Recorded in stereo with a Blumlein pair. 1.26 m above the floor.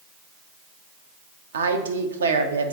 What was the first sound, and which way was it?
A woman speaking, 70° right.